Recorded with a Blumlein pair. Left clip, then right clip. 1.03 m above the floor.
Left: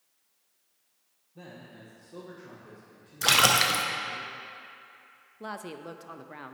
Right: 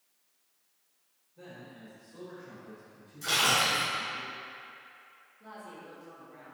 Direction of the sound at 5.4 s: 40° left.